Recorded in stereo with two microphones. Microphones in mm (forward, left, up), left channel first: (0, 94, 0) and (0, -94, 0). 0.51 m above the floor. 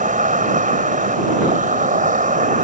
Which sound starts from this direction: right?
An insect, at 0.0 s.